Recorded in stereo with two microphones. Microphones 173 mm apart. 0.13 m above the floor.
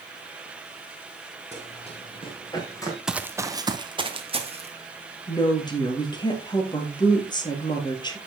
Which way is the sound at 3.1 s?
5° right (ahead or behind).